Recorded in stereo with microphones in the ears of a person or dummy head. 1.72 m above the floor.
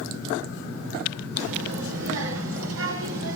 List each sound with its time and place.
1.4 s a child speaking: 75° right (ahead or behind), 3 m; by 3.4 s 80° right, 5 m